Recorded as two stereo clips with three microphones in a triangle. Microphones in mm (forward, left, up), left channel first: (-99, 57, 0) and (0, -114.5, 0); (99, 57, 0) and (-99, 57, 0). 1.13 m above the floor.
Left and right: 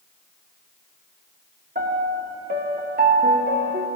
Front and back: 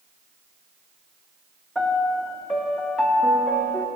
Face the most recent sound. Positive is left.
turn(degrees=-85)